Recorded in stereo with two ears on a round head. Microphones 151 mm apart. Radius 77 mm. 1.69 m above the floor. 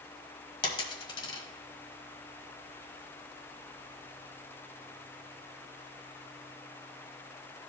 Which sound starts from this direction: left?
A dropped coin, at 0.6 s.